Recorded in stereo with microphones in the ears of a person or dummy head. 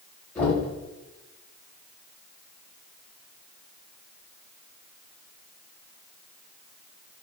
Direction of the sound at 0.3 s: 5° left (ahead or behind).